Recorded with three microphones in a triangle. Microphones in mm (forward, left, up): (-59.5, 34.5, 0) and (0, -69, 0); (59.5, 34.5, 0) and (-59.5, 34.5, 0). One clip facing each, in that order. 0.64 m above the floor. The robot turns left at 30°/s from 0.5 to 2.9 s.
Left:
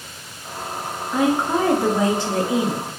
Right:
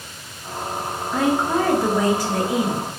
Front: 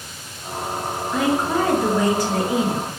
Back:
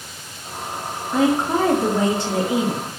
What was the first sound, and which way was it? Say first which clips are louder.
A woman speaking: left 1 dB, back 2 dB; 175° right.